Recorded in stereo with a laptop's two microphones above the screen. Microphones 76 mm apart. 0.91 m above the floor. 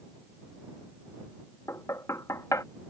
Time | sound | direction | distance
1.7 | knocking | 45° left (ahead or behind) | ?